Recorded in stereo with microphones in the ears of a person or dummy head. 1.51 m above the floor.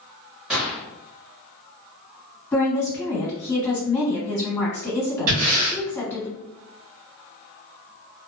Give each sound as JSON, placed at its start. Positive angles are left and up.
{"t": 0.5, "sound": "a gunshot", "side_deg": -10, "distance_m": 1.0}
{"t": 2.5, "sound": "a woman speaking", "side_deg": 15, "distance_m": 1.4}
{"t": 5.3, "sound": "breathing", "side_deg": -45, "distance_m": 1.4}